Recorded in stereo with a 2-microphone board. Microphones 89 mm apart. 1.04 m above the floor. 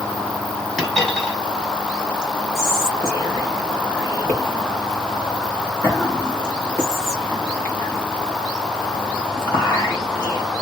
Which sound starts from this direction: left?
Whispering, at 2.5 s.